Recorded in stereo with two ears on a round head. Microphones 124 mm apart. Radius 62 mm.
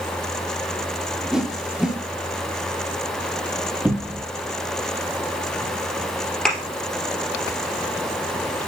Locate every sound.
1.3 s a whoosh: 5° right (ahead or behind), 1.0 m
3.9 s a cupboard door: 10° right (ahead or behind), 0.7 m
6.5 s a thud: 5° left (ahead or behind), 2.5 m